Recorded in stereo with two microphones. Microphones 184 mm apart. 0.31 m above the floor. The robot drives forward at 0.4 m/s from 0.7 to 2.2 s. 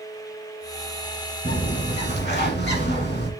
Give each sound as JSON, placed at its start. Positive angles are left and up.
{"t": 1.4, "sound": "a bird", "side_deg": 70, "distance_m": 1.5}